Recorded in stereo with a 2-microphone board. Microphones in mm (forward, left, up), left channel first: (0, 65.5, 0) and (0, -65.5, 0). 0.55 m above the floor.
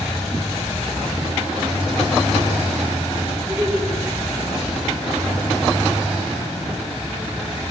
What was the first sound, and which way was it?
Laughter, centre (ahead or behind).